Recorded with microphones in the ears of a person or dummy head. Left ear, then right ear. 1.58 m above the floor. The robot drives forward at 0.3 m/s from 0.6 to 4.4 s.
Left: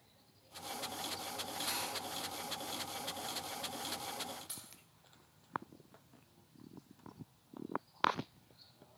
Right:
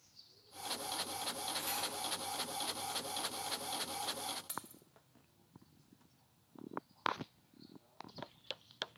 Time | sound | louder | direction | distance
1.6 | cutlery clinking | left 4 dB | 30° right (ahead or behind) | 1.6 m
4.5 | keys jangling | right 5 dB | 30° right (ahead or behind) | 1.5 m